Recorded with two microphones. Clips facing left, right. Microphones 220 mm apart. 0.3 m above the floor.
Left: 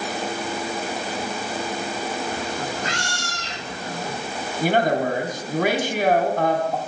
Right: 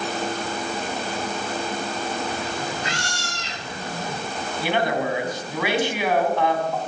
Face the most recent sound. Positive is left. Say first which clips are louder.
# left 3 dB
turn(degrees=45)  # may be behind; listen again after turning